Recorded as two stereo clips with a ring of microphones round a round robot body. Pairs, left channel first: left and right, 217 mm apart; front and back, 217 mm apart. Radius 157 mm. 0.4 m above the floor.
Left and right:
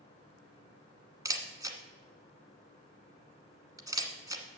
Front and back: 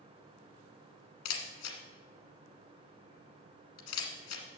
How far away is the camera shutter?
About 1.4 m.